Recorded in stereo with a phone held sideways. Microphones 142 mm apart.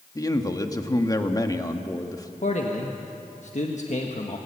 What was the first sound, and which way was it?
A man speaking, 25° left (ahead or behind).